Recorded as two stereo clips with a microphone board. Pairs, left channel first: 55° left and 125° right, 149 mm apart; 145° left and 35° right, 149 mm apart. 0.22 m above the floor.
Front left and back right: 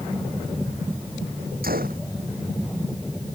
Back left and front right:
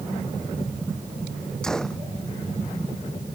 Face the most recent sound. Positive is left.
turn(degrees=-130)